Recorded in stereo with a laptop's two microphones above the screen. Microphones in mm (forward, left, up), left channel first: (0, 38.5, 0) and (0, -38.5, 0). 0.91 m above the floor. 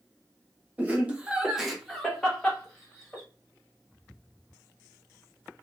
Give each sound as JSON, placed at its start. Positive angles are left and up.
{"t": 0.8, "sound": "laughter", "side_deg": -20, "distance_m": 0.7}